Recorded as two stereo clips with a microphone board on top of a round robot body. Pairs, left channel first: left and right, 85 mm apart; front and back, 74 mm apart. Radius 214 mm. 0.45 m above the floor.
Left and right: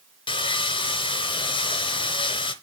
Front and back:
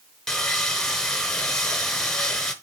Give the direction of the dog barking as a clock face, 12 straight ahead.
No dog barking in this recording.